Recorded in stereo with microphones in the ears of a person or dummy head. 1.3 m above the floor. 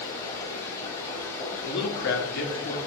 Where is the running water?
15° left (ahead or behind), 0.9 m.